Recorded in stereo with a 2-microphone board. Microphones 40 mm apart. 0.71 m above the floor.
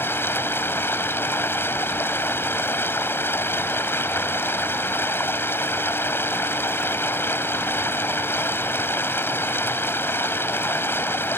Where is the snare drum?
I don't hear a snare drum.